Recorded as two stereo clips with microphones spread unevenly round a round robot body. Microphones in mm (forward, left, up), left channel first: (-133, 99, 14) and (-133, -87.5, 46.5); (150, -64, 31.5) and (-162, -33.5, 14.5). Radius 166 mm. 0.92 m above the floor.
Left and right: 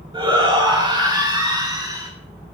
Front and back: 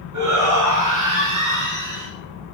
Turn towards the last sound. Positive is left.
turn(degrees=-160)